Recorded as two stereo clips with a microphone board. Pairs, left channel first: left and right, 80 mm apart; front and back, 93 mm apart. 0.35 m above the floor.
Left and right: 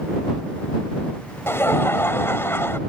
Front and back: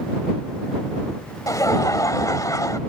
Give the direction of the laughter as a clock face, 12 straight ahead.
11 o'clock.